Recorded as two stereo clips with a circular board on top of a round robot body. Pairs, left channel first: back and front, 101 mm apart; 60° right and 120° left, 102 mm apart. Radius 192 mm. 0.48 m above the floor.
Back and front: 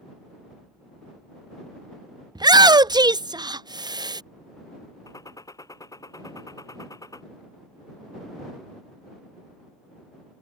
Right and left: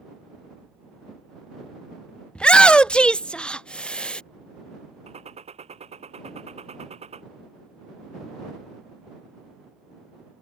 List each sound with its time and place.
2.4 s a shout: 15° left
5.1 s a gunshot: 120° left